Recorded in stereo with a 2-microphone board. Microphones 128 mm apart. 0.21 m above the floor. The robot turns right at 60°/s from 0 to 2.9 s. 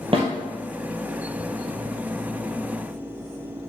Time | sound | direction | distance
0.1 | a snare drum | 45° right (ahead or behind) | 1.8 m